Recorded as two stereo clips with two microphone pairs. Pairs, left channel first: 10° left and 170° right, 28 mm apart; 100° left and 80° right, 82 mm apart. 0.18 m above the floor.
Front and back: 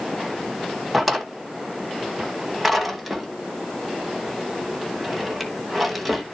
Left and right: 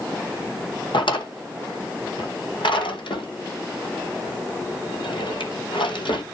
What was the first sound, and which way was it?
A drawer, 100° left.